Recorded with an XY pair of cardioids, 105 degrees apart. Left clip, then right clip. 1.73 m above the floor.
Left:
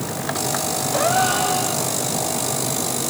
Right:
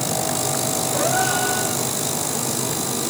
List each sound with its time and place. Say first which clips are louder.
0.9 s a gasp: left 3 dB; 40° left, 6 m